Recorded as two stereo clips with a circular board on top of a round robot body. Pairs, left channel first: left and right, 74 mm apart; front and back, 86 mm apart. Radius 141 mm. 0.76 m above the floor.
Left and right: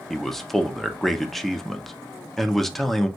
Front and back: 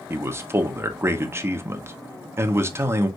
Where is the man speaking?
170° left, 1.1 m.